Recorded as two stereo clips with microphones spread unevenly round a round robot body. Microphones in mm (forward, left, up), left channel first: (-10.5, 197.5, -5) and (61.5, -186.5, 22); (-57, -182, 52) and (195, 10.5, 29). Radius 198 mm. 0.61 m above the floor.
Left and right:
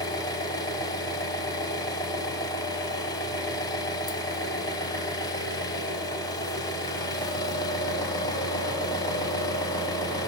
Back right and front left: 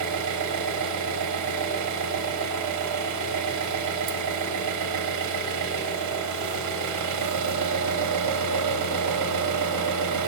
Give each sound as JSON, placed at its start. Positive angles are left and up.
{"t": 0.0, "sound": "an engine running", "azimuth_deg": 25, "distance_m": 0.9}